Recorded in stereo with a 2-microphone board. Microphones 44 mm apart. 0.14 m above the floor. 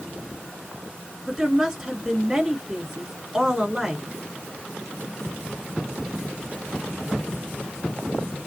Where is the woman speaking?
10° right (ahead or behind), 1.8 m.